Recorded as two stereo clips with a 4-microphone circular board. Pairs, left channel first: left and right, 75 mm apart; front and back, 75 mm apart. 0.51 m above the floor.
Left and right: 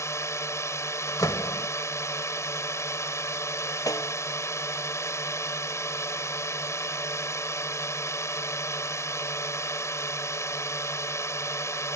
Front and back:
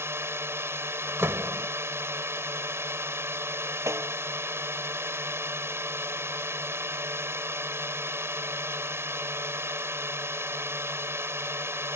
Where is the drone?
130° left.